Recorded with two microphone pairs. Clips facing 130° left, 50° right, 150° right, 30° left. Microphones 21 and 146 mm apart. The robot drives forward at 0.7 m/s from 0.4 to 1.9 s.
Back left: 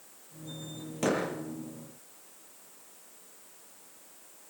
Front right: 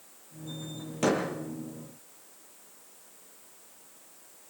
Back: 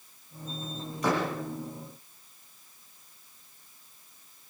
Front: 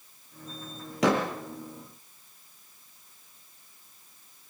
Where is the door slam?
30° left, 6.5 m.